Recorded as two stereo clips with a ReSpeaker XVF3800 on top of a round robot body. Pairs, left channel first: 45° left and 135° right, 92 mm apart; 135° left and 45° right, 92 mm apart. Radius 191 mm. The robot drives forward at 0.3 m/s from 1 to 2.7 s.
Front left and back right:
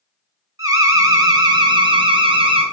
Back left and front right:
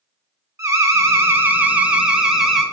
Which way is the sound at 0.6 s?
95° right.